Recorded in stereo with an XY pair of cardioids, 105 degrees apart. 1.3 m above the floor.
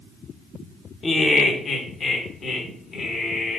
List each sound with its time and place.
1.0 s laughter: 35° left, 0.8 m; by 3.6 s 55° left, 2.5 m